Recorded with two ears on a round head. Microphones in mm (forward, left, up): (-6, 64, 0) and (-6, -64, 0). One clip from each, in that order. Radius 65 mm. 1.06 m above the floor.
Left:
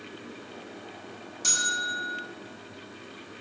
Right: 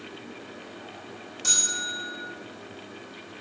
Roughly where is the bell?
Centre.